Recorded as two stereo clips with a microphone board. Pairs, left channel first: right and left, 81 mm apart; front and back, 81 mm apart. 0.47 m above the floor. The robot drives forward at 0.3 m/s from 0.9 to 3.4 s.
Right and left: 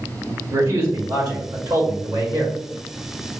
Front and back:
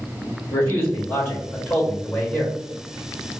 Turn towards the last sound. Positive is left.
turn(degrees=85)